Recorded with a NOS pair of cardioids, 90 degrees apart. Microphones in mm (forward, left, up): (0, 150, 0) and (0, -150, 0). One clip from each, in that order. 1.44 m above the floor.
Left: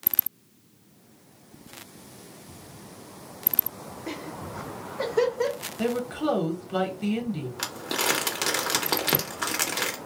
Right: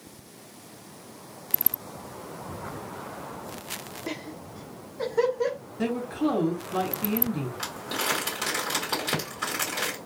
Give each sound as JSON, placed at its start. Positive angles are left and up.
{"t": 4.1, "sound": "laughter", "azimuth_deg": -15, "distance_m": 0.5}
{"t": 5.8, "sound": "a woman speaking", "azimuth_deg": 20, "distance_m": 1.2}
{"t": 7.6, "sound": "crumpling", "azimuth_deg": 40, "distance_m": 1.0}